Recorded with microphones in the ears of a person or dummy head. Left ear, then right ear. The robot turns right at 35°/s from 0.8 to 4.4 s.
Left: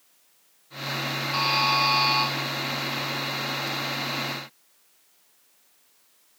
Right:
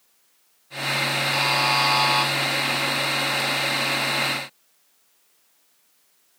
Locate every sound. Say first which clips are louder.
1.3 s a buzzer: even; 170° right, 0.6 m; by 2.3 s 135° right, 0.6 m